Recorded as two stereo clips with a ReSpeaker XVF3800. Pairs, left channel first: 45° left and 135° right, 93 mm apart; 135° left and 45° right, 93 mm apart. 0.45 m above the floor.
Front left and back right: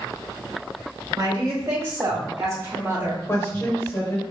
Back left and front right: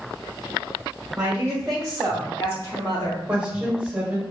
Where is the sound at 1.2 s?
110° right, 1.1 m; by 3.2 s 160° left, 1.2 m.